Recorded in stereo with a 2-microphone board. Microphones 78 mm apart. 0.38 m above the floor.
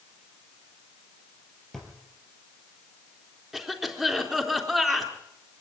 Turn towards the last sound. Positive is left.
turn(degrees=-5)  # may be behind; listen again after turning